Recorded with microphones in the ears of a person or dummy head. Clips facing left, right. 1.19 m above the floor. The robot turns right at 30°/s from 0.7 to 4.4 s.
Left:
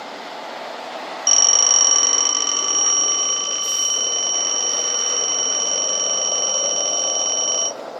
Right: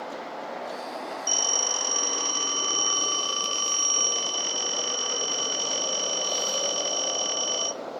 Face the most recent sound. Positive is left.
turn(degrees=-175)